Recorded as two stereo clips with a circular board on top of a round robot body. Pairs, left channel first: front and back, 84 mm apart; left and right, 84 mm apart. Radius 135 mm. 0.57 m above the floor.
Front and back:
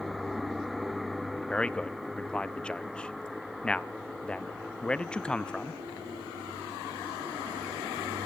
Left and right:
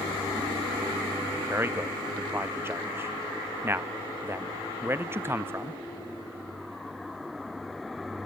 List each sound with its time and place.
1.5 s a man speaking: 65° right, 0.9 m